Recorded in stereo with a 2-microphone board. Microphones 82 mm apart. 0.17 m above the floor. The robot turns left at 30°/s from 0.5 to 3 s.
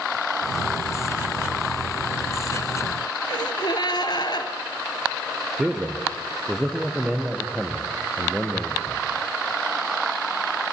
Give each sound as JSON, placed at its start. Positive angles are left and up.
{"t": 3.3, "sound": "a gasp", "side_deg": 60, "distance_m": 2.5}
{"t": 5.6, "sound": "a man speaking", "side_deg": -5, "distance_m": 3.5}